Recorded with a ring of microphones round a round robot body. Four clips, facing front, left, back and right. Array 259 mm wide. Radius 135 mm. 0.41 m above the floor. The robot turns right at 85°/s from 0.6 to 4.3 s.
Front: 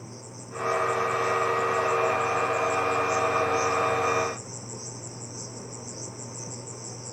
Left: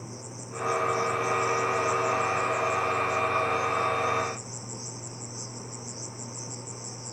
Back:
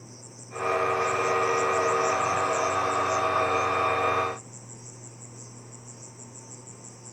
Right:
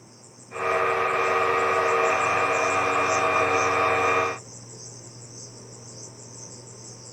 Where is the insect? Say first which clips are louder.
Left 9 dB, front 5 dB; 55° left, 1.5 m; by 7.1 s 10° left, 1.5 m.